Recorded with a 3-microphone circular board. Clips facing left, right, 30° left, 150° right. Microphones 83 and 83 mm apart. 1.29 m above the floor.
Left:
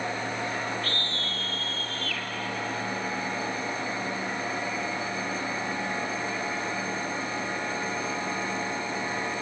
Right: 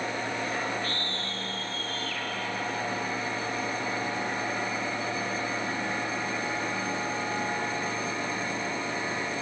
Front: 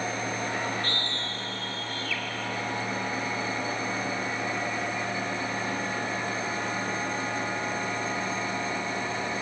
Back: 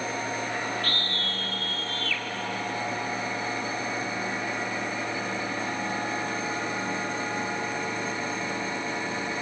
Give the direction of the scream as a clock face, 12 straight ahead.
9 o'clock.